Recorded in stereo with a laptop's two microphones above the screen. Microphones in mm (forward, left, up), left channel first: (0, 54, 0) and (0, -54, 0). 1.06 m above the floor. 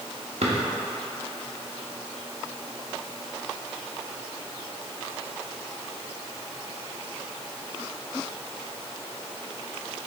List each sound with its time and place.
0.4 s a drawer: 75° right (ahead or behind), 1.2 m